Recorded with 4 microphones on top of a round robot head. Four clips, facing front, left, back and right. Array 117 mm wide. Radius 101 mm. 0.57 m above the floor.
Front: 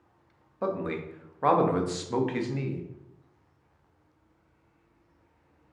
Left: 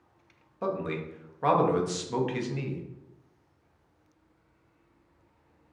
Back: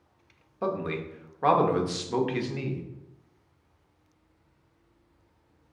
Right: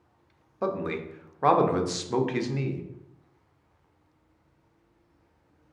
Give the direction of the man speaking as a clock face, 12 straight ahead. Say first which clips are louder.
Right 2 dB, even; 3 o'clock.